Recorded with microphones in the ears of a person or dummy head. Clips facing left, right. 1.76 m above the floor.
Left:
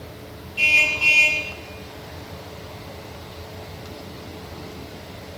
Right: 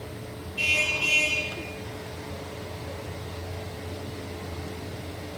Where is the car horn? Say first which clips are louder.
Left 2 dB; 75° left (ahead or behind), 6 m.